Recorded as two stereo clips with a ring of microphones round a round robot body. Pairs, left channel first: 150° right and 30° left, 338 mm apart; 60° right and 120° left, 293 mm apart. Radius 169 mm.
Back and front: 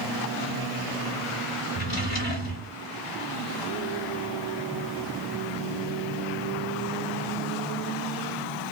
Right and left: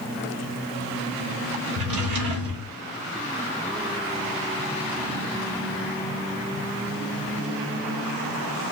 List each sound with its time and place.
1.8 s a drawer: 155° left, 1.3 m